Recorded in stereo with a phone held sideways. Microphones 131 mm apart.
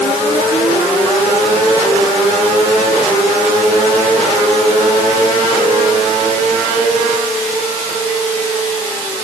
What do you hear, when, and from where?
Only background noise.